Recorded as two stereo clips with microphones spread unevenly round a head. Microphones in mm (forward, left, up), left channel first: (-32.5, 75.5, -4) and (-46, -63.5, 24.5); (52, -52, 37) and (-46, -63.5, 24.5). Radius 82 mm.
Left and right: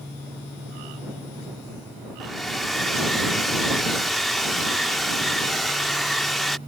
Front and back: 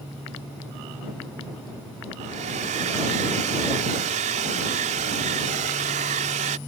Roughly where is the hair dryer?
Behind.